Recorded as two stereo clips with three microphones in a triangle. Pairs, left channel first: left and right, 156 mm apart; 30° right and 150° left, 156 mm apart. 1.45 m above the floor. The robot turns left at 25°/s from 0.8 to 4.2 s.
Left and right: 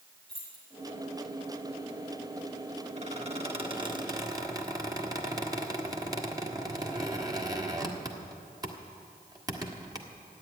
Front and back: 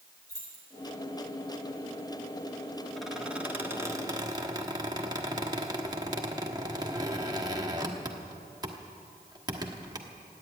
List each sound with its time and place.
0.3 s keys jangling: 40° left, 6.5 m
3.0 s a squeak: 120° right, 1.4 m; by 10.0 s 150° right, 1.4 m